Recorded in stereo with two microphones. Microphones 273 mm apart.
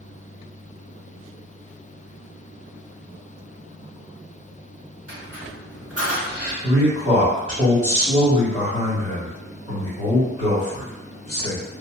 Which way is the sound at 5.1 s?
60° right (ahead or behind).